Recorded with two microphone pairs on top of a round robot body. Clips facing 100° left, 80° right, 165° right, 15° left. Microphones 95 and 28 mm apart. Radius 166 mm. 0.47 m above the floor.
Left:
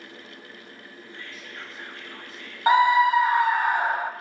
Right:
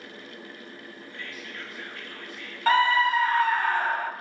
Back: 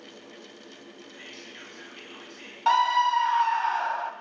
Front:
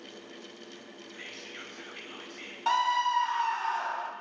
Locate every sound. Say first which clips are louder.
1.1 s whispering: right 1 dB, front 1 dB; 40° left, 3.5 m
2.7 s a scream: left 4 dB, back 5 dB; 140° left, 1.0 m